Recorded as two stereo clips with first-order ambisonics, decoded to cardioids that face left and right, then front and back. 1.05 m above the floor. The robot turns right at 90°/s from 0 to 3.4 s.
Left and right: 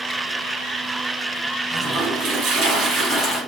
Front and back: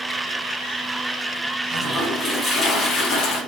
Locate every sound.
1.7 s a toilet flushing: 150° right, 1.3 m; by 3.4 s 5° left, 1.3 m